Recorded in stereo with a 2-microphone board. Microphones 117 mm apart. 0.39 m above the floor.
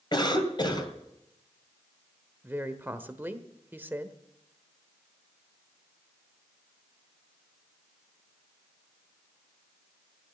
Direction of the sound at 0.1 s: 40° left (ahead or behind).